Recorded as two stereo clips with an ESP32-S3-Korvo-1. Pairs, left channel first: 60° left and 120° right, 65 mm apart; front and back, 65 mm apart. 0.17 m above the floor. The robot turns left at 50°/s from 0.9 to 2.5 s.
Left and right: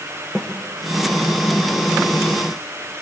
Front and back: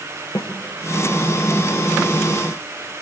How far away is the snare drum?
About 2.5 m.